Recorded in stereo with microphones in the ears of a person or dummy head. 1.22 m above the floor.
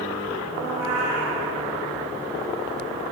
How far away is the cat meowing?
About 7.5 m.